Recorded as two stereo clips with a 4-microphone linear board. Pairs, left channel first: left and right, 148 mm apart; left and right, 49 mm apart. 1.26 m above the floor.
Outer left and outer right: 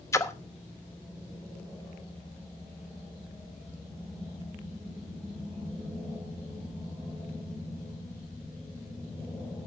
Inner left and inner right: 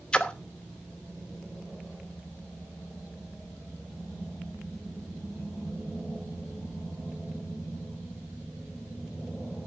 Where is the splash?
20° left (ahead or behind), 0.9 m.